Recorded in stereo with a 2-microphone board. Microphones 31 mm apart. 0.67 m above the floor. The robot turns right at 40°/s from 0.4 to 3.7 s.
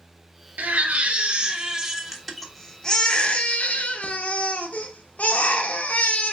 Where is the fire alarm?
I don't hear a fire alarm.